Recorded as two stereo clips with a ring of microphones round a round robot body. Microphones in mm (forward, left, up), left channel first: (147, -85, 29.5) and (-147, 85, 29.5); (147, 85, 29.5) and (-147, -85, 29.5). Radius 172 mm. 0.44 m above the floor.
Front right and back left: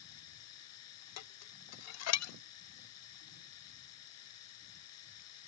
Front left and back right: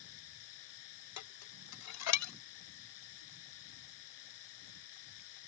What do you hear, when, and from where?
0.0 s running water: 20° left
1.2 s dishes clattering: 5° left